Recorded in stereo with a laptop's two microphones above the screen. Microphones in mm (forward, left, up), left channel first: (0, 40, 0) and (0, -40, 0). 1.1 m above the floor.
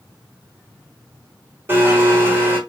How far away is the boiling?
No boiling in this recording.